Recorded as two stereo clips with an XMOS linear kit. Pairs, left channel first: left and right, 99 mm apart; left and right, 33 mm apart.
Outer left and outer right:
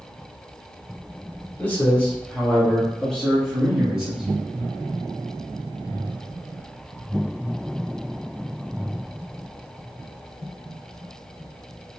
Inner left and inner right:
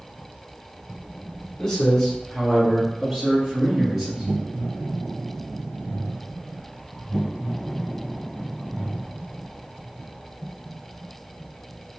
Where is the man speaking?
20° left (ahead or behind), 1.2 m; by 4.2 s 10° right (ahead or behind), 1.7 m.